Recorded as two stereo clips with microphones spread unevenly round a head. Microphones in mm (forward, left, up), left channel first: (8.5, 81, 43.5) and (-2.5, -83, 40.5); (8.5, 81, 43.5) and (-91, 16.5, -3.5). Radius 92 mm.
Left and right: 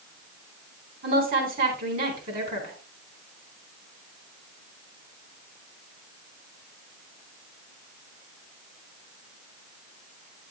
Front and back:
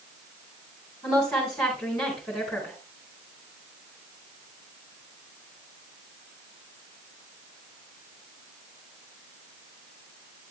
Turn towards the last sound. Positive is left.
turn(degrees=-55)